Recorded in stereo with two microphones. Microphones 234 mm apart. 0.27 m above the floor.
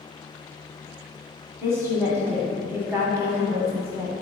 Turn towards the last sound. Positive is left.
turn(degrees=-10)  # may be behind; listen again after turning